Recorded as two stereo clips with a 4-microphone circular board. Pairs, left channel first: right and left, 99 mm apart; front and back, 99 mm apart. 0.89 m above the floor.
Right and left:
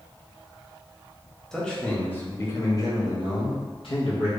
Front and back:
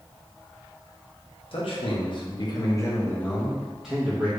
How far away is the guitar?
No guitar in this recording.